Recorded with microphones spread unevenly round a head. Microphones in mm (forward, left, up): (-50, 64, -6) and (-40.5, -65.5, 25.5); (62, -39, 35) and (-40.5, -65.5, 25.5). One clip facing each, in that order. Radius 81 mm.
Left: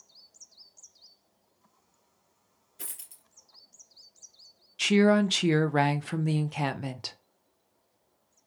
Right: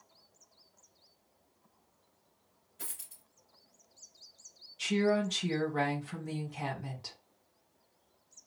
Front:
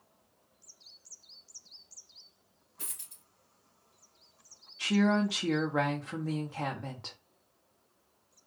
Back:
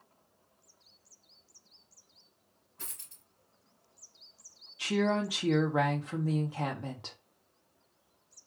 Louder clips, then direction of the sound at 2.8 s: Left 1 dB, even; 70° left.